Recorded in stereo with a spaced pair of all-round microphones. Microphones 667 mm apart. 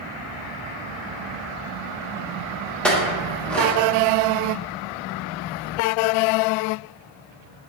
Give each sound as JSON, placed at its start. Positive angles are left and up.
{"t": 2.8, "sound": "a clink", "side_deg": 0, "distance_m": 0.9}